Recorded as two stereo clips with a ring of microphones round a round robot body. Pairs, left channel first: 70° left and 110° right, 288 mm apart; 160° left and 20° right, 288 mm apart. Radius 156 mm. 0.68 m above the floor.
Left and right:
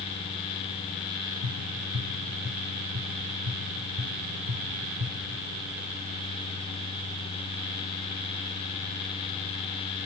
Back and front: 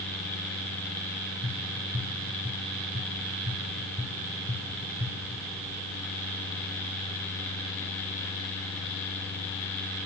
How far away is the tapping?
About 6.5 m.